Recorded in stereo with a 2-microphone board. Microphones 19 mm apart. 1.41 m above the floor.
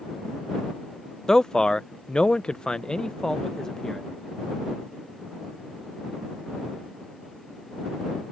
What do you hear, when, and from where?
1.3 s a man speaking: 30° left (ahead or behind)